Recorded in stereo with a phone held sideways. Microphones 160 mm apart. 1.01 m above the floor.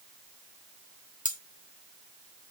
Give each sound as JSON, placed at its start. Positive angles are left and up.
{"t": 1.2, "sound": "cutlery clinking", "side_deg": 55, "distance_m": 0.7}